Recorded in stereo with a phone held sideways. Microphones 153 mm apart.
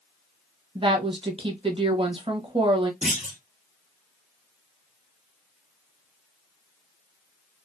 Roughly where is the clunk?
Right.